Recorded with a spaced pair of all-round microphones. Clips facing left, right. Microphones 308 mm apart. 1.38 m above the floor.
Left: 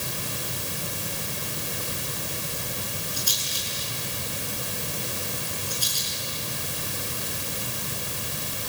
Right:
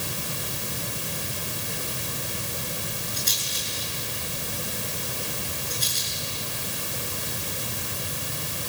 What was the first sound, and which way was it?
A rattle, 25° right (ahead or behind).